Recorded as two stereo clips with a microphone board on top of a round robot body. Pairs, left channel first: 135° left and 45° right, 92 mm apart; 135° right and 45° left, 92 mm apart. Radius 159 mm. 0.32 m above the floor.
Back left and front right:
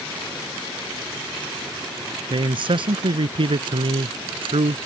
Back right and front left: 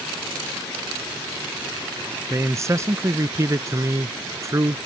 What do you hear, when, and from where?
2.3 s a man speaking: 15° right